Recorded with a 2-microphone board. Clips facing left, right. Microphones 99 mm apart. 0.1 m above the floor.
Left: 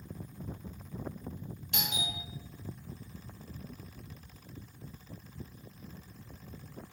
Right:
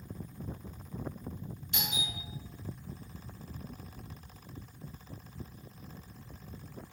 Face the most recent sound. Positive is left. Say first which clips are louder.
# left 1 dB
turn(degrees=60)  # may be behind; listen again after turning